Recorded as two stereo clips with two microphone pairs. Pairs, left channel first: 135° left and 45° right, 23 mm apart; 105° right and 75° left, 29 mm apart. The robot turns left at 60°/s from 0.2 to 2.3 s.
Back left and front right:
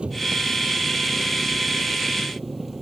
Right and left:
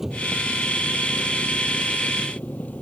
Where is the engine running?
5° right; by 2.8 s 130° right.